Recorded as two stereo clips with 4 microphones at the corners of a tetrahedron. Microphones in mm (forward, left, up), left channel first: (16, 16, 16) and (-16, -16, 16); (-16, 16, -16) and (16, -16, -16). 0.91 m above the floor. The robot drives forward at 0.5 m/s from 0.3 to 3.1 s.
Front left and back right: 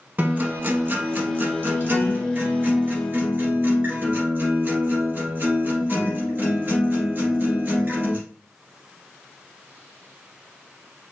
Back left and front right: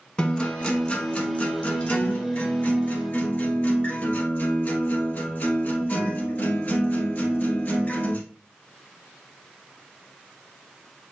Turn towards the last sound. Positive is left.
turn(degrees=-175)